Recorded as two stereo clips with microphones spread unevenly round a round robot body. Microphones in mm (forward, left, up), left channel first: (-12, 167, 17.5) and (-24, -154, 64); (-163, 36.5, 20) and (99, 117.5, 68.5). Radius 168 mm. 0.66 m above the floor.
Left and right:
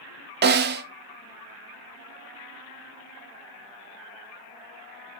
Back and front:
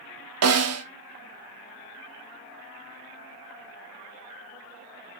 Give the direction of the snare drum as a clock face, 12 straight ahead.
1 o'clock.